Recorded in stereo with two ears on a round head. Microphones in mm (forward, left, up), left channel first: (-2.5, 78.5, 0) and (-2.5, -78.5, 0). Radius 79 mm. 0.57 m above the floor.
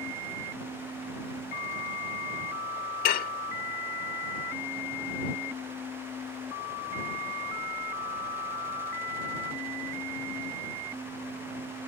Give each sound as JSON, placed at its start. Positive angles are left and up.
{"t": 3.0, "sound": "dishes clattering", "side_deg": 55}